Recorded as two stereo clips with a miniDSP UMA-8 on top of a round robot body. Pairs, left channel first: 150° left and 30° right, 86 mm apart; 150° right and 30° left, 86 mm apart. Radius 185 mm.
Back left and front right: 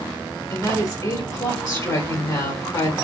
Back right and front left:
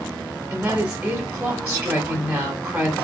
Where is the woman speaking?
105° left, 2 m.